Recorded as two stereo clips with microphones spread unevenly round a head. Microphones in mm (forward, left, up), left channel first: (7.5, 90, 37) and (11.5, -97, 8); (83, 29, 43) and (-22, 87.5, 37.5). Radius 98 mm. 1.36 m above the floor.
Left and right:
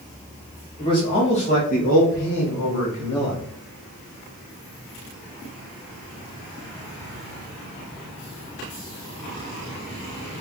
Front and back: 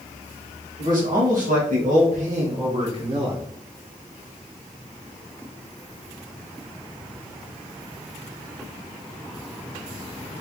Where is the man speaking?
160° left, 1.8 m; by 3.4 s 100° left, 1.3 m.